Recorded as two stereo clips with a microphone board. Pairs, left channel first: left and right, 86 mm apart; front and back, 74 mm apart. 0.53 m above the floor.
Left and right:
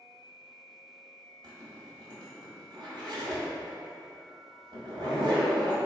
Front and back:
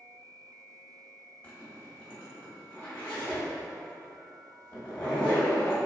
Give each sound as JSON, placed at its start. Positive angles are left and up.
{"t": 1.4, "sound": "a zipper", "azimuth_deg": -65, "distance_m": 1.5}